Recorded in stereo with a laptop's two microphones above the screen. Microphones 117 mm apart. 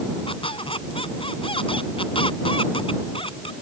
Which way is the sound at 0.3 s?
50° left (ahead or behind).